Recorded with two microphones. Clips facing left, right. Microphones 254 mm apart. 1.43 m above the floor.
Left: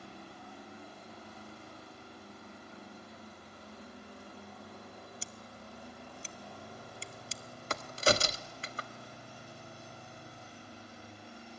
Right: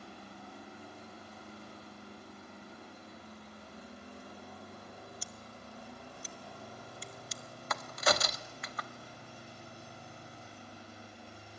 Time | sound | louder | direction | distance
5.2 | scissors | even | 25° left (ahead or behind) | 0.8 m
7.7 | a crack | left 3 dB | 30° left (ahead or behind) | 1.0 m